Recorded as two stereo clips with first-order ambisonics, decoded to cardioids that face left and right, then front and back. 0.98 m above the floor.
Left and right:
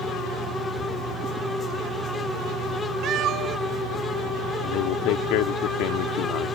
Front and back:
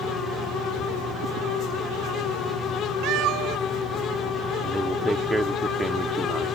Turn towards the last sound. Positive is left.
turn(degrees=95)